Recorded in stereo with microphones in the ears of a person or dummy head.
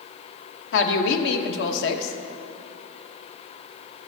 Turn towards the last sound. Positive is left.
turn(degrees=70)  # may be behind; listen again after turning